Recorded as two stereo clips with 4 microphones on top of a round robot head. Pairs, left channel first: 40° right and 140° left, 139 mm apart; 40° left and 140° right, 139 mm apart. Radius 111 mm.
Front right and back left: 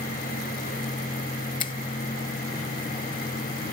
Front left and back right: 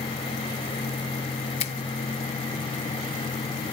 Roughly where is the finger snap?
Ahead.